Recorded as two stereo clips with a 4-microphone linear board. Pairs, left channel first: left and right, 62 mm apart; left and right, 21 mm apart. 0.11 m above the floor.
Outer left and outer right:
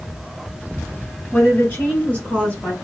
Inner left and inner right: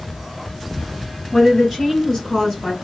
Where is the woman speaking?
30° left (ahead or behind), 1.9 m; by 2.7 s 20° left (ahead or behind), 1.6 m.